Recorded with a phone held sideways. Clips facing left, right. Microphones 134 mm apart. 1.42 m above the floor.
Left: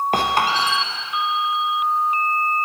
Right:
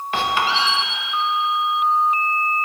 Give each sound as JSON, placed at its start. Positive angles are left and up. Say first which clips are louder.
{"t": 0.1, "sound": "a squeak", "louder": "right 2 dB", "side_deg": 40, "distance_m": 0.8}